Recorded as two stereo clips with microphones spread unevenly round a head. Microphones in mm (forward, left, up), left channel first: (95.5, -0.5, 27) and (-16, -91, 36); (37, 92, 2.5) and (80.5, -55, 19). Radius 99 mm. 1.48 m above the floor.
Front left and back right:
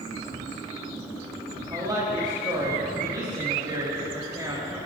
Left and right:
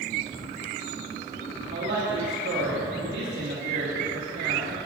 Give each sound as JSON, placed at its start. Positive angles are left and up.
{"t": 1.7, "sound": "a woman speaking", "azimuth_deg": -80, "distance_m": 2.5}